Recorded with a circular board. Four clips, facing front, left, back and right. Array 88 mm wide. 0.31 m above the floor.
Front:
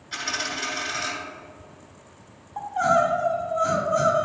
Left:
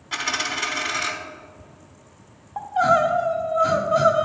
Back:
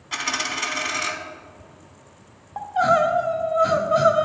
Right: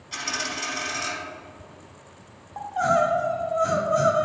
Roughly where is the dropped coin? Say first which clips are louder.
Left 4 dB, back 3 dB; behind left.